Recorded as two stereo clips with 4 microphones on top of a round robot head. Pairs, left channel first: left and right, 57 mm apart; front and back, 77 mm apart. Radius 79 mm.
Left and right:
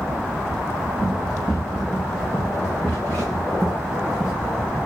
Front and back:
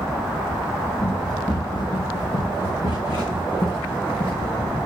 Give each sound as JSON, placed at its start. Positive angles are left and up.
{"t": 1.0, "sound": "running footsteps", "azimuth_deg": 20, "distance_m": 3.0}